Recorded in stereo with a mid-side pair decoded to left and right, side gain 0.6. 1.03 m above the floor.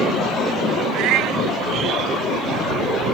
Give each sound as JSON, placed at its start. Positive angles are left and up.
{"t": 0.9, "sound": "a cat meowing", "azimuth_deg": -65}